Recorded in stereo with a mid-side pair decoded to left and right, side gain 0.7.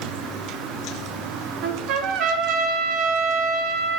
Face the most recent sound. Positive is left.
turn(degrees=-60)